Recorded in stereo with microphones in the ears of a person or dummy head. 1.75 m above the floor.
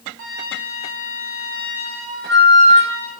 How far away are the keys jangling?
I don't hear keys jangling.